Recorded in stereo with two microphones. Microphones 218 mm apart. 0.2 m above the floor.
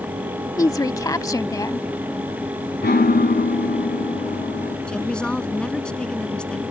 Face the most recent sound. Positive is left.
turn(degrees=5)  # may be behind; listen again after turning